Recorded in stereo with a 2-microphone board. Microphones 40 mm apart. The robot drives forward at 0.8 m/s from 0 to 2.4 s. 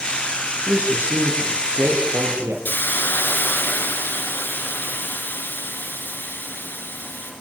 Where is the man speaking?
65° right (ahead or behind), 9 m; by 2.5 s 75° right (ahead or behind), 8.5 m.